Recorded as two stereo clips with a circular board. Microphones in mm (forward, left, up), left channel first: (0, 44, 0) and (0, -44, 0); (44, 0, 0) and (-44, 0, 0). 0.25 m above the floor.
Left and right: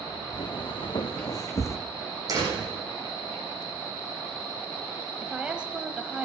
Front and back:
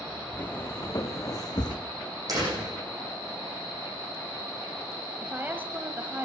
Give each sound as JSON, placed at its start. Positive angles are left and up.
{"t": 0.3, "sound": "footsteps", "azimuth_deg": 60, "distance_m": 1.8}
{"t": 2.3, "sound": "a door slam", "azimuth_deg": -135, "distance_m": 9.0}
{"t": 5.2, "sound": "a woman speaking", "azimuth_deg": -155, "distance_m": 1.0}